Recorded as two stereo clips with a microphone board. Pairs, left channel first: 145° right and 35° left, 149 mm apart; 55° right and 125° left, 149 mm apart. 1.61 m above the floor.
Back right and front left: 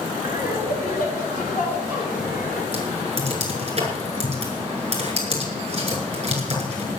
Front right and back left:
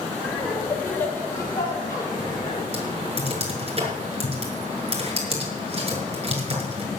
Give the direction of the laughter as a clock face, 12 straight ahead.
5 o'clock.